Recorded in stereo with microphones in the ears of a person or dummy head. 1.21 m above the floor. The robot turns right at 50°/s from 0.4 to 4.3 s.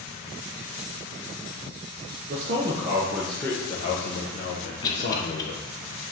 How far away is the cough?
About 0.5 m.